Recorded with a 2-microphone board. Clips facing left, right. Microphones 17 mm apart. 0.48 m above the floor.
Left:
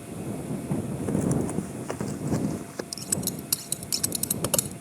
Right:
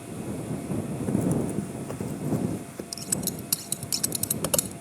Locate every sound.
0.7 s running footsteps: 35° left (ahead or behind); by 2.8 s 65° left (ahead or behind)
2.9 s scissors: 5° right (ahead or behind)